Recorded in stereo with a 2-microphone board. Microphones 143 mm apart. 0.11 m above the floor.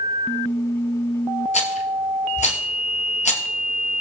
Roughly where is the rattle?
Left.